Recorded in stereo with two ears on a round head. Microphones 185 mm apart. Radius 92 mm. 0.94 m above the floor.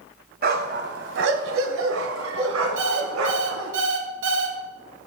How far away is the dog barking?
About 1.7 m.